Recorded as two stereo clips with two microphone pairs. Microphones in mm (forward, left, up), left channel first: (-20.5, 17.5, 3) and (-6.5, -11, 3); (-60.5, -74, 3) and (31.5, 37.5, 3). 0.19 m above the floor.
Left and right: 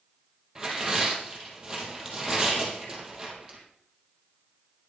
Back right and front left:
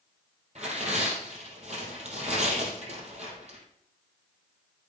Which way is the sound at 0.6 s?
10° left.